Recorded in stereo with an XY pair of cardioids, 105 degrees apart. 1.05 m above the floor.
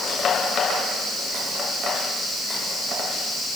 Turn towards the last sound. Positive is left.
No sound to turn to.